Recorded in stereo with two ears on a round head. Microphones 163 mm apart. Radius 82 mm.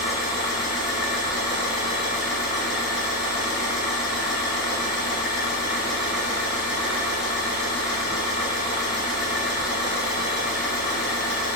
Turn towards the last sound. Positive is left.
turn(degrees=-5)  # may be behind; listen again after turning